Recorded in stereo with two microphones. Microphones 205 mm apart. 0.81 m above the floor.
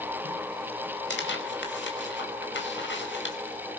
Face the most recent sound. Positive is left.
turn(degrees=65)  # may be behind; listen again after turning